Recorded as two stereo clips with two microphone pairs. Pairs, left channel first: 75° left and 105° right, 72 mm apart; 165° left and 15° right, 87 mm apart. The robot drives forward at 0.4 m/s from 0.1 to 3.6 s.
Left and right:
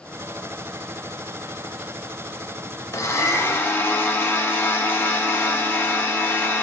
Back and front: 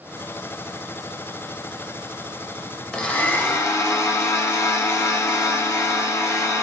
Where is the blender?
90° left, 0.6 m; by 6.6 s 125° left, 0.6 m.